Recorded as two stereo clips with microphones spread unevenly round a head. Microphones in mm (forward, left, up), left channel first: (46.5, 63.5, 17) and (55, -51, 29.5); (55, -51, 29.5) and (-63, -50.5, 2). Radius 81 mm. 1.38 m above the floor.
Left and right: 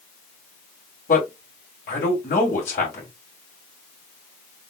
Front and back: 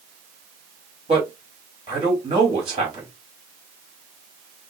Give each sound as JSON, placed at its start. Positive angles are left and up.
{"t": 1.1, "sound": "a man speaking", "azimuth_deg": 120, "distance_m": 2.5}